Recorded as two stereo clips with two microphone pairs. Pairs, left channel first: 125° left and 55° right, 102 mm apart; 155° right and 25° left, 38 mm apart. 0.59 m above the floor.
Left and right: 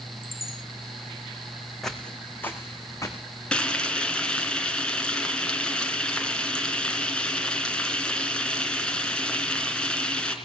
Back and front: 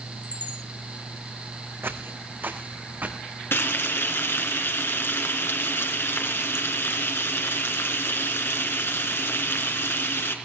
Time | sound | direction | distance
0.2 | a chime | 150° left | 10 m
1.8 | footsteps | 35° left | 2 m
3.5 | frying | 155° right | 3 m